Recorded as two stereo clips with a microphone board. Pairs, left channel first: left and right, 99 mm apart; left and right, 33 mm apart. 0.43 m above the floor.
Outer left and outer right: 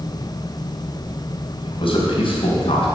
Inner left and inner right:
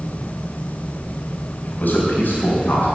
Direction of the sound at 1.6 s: 65° left (ahead or behind).